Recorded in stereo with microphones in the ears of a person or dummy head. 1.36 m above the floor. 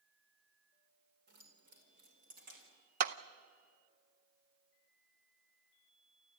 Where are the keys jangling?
55° right (ahead or behind), 3.5 m; by 2.8 s 45° right (ahead or behind), 5 m.